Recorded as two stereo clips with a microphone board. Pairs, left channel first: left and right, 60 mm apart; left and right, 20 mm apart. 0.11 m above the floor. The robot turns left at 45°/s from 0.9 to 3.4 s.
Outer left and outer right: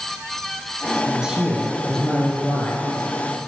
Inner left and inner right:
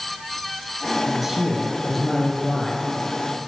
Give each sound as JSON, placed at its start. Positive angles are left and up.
{"t": 1.1, "sound": "a man speaking", "azimuth_deg": -155, "distance_m": 2.5}